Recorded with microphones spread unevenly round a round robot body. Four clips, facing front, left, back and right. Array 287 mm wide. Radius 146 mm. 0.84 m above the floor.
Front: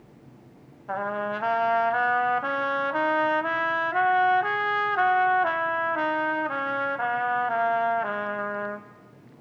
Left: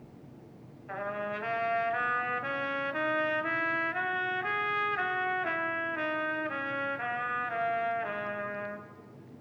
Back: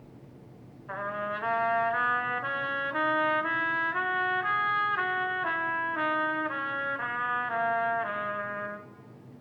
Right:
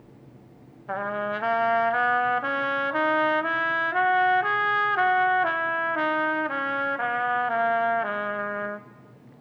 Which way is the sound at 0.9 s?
65° right.